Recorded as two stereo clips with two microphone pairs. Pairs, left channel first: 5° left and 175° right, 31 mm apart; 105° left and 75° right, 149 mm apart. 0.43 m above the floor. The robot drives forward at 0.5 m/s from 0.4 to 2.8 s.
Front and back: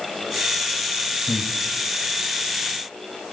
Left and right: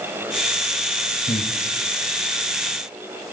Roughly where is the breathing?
Left.